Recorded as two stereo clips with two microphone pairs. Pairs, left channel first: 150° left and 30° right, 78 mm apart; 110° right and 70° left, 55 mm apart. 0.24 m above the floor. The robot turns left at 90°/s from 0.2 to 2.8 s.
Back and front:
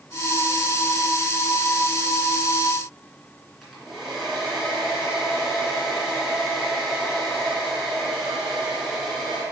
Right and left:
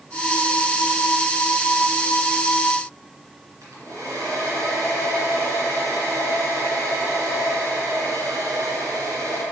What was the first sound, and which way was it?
A hair dryer, 55° left.